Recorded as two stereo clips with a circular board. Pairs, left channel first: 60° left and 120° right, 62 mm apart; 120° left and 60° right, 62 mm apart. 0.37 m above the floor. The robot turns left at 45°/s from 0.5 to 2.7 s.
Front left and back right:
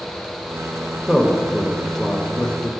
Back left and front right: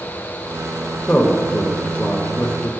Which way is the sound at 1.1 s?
175° left.